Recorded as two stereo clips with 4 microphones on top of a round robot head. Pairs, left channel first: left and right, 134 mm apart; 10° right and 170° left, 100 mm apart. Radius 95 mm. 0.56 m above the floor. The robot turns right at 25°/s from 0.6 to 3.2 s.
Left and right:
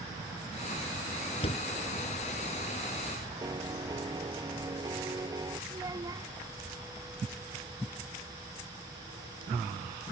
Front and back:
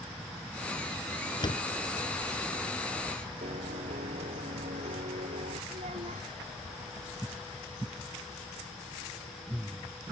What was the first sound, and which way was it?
A door slam, 35° left.